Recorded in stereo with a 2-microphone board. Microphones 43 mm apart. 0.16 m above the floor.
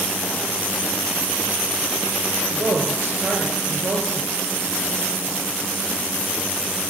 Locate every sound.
2.5 s a woman speaking: 55° right (ahead or behind), 3 m